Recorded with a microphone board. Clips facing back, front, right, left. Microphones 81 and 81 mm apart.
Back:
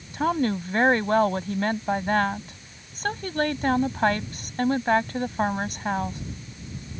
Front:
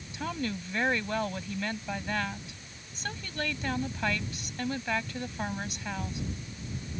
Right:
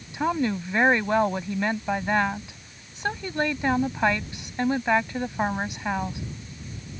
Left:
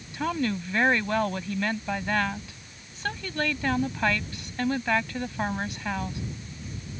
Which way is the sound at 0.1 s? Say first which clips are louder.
Back 10 dB, right 3 dB; 155° right.